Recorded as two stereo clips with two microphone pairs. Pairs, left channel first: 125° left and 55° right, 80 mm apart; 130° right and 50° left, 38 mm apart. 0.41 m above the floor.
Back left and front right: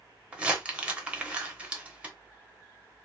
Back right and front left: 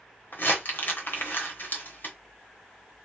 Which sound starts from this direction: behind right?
Crumpling, at 0.3 s.